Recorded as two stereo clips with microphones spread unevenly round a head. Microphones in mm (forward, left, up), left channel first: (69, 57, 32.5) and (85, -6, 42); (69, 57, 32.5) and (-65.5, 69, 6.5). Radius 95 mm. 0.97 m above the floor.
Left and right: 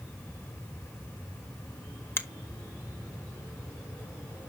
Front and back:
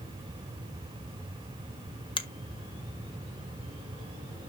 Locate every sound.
2.2 s a finger snap: 55° left, 1.2 m